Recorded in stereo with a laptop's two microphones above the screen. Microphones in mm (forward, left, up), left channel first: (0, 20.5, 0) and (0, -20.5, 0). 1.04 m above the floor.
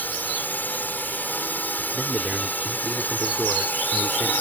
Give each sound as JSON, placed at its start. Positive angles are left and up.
{"t": 0.0, "sound": "a drone", "side_deg": 50}
{"t": 1.9, "sound": "a man speaking", "side_deg": -20}